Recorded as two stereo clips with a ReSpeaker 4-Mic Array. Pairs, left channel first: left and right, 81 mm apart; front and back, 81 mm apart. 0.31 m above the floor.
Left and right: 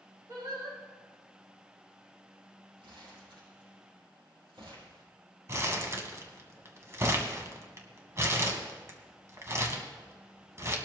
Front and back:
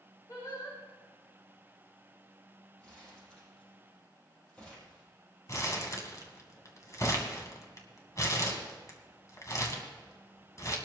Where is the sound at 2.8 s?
75° right, 6.5 m.